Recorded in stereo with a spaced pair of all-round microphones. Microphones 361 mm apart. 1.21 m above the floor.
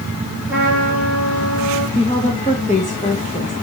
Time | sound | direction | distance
0.5 | a trumpet | 5° right (ahead or behind) | 5.5 m
1.9 | a woman speaking | 20° left (ahead or behind) | 1.5 m